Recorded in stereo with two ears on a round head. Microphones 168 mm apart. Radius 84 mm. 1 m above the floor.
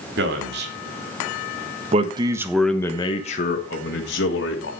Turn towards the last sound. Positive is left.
turn(degrees=70)  # may be behind; listen again after turning